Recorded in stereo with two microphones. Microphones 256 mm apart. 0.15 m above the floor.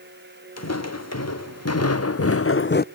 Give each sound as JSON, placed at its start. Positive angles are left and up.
{"t": 0.6, "sound": "footsteps", "side_deg": 80, "distance_m": 1.9}